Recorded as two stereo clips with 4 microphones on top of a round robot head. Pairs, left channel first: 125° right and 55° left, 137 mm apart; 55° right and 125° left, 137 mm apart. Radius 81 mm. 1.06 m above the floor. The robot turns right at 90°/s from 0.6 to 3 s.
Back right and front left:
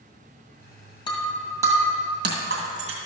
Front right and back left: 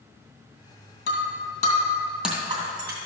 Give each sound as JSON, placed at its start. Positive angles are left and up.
{"t": 1.1, "sound": "breaking glass", "azimuth_deg": -65, "distance_m": 2.5}